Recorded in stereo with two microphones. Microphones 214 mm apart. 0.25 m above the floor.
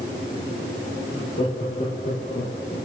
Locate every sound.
1.1 s laughter: 40° left (ahead or behind), 5.5 m; by 2.8 s 25° left (ahead or behind), 5.5 m